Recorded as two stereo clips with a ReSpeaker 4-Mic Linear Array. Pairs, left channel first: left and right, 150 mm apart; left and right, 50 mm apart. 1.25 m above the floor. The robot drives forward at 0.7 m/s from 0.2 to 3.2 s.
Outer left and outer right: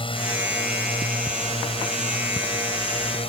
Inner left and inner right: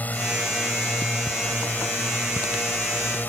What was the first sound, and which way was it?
A drone, 35° left (ahead or behind).